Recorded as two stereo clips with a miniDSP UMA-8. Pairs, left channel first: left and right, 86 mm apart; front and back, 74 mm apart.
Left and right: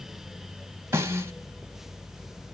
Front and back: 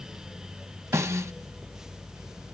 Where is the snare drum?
135° right, 1.7 m.